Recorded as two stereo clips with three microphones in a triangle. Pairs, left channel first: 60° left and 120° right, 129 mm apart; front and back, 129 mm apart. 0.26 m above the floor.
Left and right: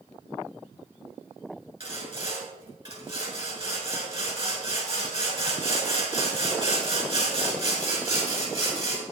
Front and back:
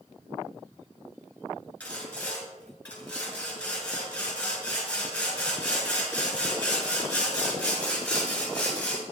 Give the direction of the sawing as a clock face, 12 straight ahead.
3 o'clock.